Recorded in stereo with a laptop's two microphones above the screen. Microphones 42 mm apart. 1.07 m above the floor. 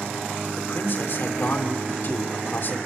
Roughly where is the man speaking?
Left.